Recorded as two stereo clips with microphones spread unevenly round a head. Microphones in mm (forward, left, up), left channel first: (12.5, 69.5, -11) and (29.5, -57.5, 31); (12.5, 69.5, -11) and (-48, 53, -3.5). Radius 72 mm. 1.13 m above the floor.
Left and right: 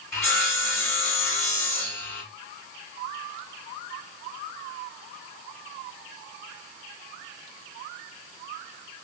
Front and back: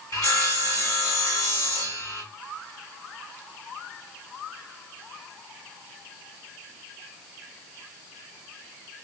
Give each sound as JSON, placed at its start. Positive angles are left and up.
{"t": 0.1, "sound": "sawing", "azimuth_deg": 25, "distance_m": 2.5}